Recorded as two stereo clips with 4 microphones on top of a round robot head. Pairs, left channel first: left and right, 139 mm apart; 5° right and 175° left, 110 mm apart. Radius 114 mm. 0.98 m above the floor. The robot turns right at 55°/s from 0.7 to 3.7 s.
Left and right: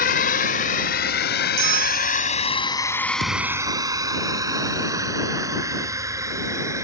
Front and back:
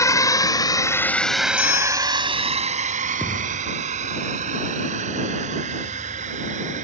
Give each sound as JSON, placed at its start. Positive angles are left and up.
{"t": 0.0, "sound": "a drone", "azimuth_deg": 55}
{"t": 1.6, "sound": "a bell", "azimuth_deg": -60}
{"t": 3.2, "sound": "a thud", "azimuth_deg": -90}